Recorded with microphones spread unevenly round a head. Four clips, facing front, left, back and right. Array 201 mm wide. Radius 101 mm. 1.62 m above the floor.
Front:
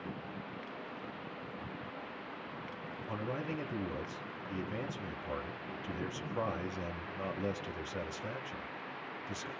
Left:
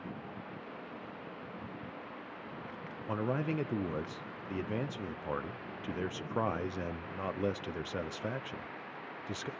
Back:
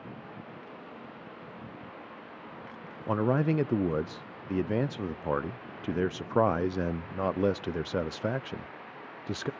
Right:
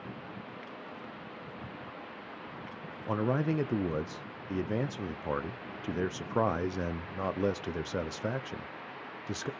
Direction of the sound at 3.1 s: 165° right.